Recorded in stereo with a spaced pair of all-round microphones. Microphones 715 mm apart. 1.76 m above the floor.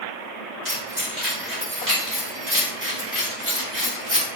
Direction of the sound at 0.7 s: 25° right (ahead or behind).